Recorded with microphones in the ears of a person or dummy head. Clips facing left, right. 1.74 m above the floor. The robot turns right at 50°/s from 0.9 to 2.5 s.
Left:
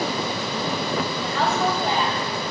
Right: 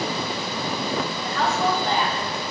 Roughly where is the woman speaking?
Behind left.